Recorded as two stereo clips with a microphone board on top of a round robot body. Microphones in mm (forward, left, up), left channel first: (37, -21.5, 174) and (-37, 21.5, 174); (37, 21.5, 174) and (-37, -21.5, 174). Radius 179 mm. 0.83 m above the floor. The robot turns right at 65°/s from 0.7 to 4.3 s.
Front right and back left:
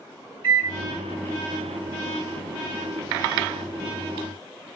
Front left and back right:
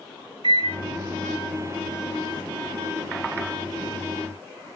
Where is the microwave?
165° right, 4.5 m; by 0.8 s 160° right, 4.5 m.